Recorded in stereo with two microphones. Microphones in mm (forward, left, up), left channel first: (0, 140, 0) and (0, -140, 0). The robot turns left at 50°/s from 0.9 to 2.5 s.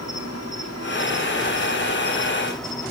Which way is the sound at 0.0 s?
80° left.